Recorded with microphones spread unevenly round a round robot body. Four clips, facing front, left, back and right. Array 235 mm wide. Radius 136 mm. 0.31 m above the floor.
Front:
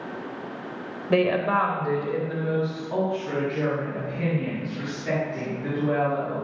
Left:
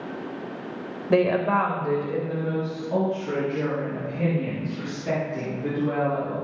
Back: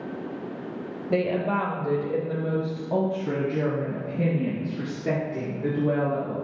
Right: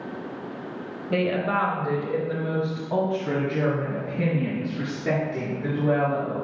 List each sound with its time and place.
1.1 s a woman speaking: 60° left, 1.0 m; by 6.3 s 155° right, 4.5 m